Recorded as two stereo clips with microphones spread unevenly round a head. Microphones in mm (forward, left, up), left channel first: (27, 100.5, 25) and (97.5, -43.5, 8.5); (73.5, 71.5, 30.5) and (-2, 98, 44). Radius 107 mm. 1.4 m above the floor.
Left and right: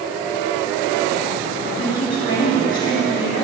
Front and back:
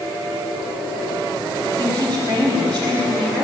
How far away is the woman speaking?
About 4 m.